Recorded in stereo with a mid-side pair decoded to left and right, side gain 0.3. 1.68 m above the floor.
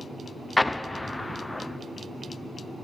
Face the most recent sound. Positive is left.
turn(degrees=20)